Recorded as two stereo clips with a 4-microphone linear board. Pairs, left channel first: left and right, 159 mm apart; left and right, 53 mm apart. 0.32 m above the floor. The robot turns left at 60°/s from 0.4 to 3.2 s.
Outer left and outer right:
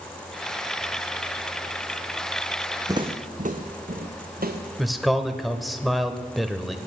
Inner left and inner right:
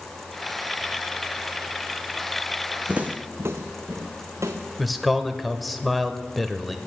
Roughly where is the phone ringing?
I don't hear a phone ringing.